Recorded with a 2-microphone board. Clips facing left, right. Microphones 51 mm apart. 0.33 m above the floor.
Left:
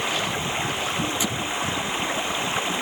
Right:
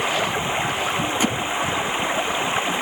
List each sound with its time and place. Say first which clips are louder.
0.0 s running water: right 4 dB; 20° right (ahead or behind)
1.2 s hammering: right 5 dB; 45° right (ahead or behind)